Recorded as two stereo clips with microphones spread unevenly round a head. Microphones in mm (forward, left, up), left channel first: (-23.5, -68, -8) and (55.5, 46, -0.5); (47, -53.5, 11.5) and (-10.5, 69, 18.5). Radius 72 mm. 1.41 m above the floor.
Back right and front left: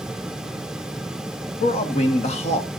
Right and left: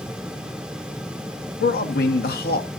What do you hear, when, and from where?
1.6 s a man speaking: 85° right, 1.5 m